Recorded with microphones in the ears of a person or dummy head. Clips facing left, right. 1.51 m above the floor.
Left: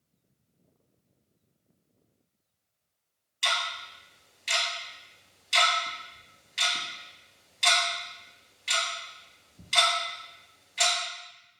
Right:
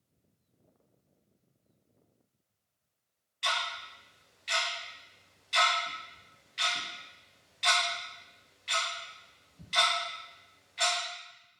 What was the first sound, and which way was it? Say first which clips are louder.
Ticking: left 2 dB; 55° left (ahead or behind).